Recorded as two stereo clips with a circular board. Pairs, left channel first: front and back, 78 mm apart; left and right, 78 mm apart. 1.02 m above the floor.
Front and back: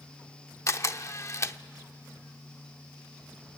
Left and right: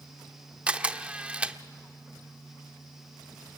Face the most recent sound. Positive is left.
turn(degrees=-20)